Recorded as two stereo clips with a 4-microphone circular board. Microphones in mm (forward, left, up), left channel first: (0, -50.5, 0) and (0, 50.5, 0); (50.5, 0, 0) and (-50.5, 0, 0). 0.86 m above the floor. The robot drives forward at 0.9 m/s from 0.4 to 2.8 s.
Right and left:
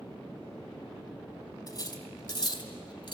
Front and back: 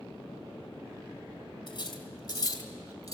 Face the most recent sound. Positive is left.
turn(degrees=-60)